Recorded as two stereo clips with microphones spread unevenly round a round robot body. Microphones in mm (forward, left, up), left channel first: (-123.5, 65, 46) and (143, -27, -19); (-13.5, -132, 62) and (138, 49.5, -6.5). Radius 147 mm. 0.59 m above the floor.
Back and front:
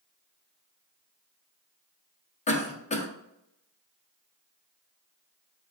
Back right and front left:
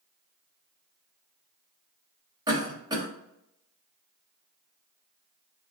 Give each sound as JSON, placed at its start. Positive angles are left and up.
{"t": 2.5, "sound": "a cough", "azimuth_deg": 90, "distance_m": 0.7}